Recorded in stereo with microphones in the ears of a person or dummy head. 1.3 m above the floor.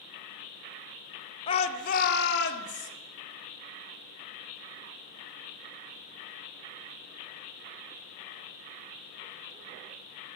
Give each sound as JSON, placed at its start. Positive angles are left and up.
{"t": 1.5, "sound": "a shout", "side_deg": 25, "distance_m": 0.6}